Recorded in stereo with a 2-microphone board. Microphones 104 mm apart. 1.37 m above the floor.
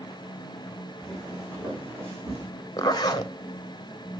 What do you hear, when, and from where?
1.0 s footsteps: 5° right (ahead or behind), 4.5 m; by 2.5 s 30° right (ahead or behind), 4.5 m
2.8 s a zipper: 40° left (ahead or behind), 0.8 m